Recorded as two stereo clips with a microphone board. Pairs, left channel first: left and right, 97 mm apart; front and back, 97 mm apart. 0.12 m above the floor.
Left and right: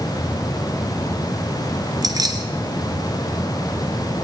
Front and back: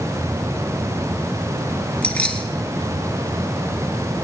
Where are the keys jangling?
75° right, 1.4 m.